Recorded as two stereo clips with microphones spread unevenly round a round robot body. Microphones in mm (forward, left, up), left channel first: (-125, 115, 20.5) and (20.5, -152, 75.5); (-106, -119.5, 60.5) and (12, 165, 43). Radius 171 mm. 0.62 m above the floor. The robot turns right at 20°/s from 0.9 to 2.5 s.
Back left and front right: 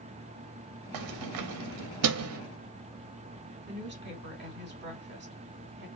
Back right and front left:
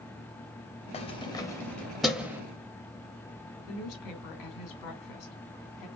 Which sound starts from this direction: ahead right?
Keys jangling, at 0.9 s.